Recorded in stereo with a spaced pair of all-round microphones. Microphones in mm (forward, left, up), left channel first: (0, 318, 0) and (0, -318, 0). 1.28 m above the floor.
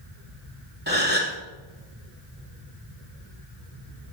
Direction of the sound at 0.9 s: 15° right (ahead or behind).